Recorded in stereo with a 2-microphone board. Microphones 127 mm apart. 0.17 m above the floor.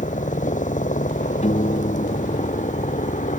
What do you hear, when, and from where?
0.0 s a helicopter: 80° left
1.4 s a piano: 60° left (ahead or behind)